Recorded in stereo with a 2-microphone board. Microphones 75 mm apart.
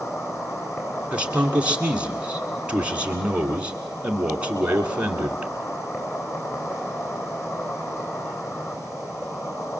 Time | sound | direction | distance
0.0 | an insect | 35° left (ahead or behind) | 3.5 m
1.1 | a man speaking | 15° right (ahead or behind) | 2.5 m